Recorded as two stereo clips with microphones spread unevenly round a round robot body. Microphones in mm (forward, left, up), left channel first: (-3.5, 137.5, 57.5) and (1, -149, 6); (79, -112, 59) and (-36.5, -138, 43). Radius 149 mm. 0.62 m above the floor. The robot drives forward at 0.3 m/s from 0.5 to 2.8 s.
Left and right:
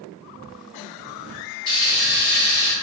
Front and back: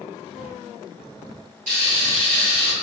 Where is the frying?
160° left, 0.8 m; by 2.7 s 165° left, 1.1 m.